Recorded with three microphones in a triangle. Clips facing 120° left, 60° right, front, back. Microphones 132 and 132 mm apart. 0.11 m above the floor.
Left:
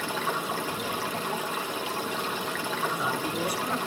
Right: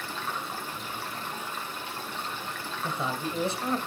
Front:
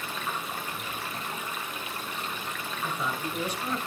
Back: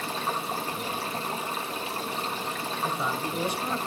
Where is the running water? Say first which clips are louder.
Left 5 dB, back 4 dB; 120° left, 1.8 m.